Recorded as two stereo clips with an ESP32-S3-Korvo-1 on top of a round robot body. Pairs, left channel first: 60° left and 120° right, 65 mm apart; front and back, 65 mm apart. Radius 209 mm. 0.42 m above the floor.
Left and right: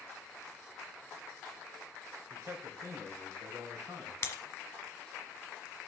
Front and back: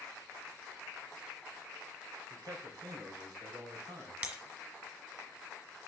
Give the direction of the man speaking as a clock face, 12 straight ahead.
5 o'clock.